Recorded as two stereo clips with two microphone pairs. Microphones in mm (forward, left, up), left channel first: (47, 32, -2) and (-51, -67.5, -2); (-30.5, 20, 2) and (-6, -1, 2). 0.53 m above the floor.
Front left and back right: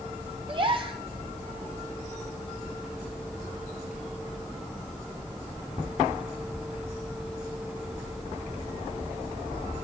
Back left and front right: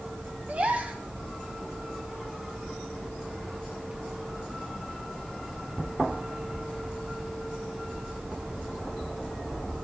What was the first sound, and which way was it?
A gasp, 85° right.